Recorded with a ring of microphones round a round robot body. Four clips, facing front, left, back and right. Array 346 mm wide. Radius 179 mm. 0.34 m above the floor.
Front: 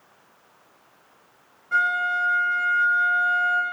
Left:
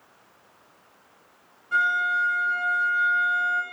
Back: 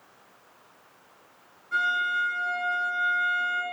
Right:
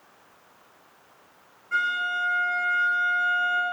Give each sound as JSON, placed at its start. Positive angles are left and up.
{"t": 1.7, "sound": "a violin", "azimuth_deg": 15, "distance_m": 2.0}